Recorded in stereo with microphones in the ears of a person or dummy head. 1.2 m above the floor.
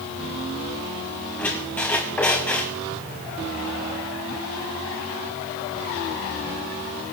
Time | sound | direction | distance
1.4 | a squeak | 10° left (ahead or behind) | 2.5 m